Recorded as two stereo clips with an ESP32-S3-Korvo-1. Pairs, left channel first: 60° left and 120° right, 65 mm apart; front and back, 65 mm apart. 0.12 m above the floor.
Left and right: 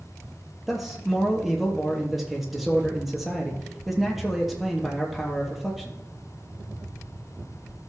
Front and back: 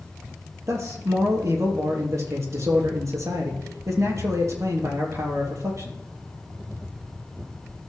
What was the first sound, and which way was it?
A man speaking, 155° left.